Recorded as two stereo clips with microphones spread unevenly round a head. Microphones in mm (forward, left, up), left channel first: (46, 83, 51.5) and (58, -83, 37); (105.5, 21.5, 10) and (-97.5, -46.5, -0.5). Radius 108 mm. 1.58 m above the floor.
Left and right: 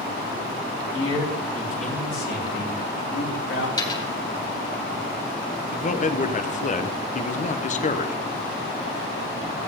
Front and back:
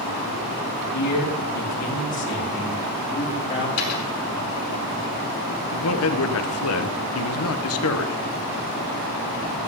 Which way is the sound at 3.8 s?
30° left.